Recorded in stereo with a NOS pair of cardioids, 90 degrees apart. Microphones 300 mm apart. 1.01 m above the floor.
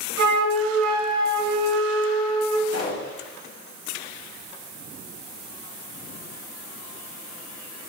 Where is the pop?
65° left, 3.5 m.